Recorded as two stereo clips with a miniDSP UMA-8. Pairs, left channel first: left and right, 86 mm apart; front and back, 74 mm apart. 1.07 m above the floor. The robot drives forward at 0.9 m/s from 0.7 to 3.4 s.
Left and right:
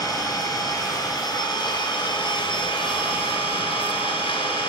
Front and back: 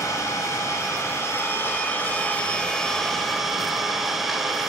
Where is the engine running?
45° left, 3.5 m; by 4.7 s 90° left, 2.5 m.